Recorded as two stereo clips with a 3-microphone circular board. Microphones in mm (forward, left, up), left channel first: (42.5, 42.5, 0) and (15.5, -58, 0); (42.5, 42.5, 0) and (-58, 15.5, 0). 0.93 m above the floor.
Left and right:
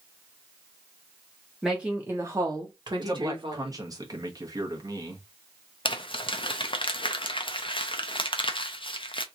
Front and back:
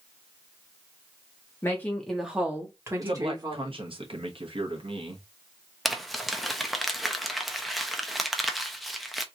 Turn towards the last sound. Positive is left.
turn(degrees=105)